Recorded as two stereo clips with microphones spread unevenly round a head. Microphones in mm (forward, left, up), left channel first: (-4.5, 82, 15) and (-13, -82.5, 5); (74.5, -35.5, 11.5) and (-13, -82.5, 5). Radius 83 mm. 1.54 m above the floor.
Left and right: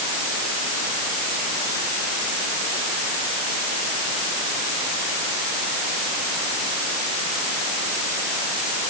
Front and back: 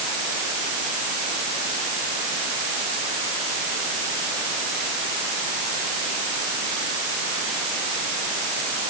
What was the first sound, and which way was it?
Only background noise.